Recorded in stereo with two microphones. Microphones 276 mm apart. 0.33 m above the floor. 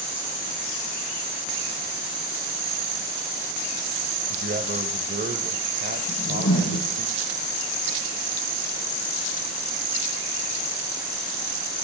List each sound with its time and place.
4.3 s a man speaking: 40° right (ahead or behind), 1.1 m
6.1 s a whoosh: 80° left, 8.5 m